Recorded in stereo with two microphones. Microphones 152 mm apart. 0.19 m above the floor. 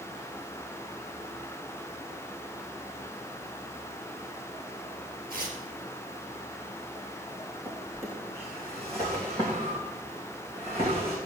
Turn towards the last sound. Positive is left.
turn(degrees=-40)  # may be behind; listen again after turning